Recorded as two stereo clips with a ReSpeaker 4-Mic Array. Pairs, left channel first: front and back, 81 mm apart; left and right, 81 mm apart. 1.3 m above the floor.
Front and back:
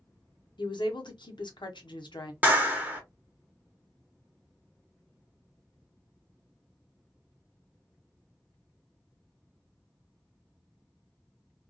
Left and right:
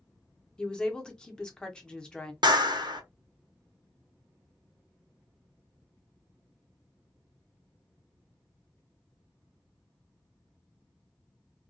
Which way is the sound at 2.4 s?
110° right.